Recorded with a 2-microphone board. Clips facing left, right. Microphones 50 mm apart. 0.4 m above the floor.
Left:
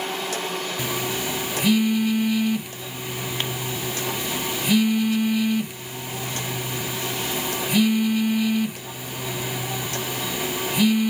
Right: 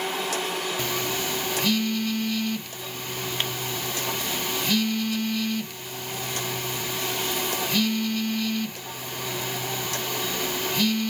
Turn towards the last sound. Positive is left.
turn(degrees=15)  # may be behind; listen again after turning